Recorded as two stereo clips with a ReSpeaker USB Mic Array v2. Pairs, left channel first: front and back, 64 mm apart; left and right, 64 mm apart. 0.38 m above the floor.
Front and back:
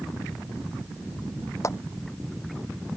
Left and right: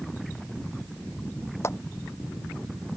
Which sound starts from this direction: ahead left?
A clap, at 1.6 s.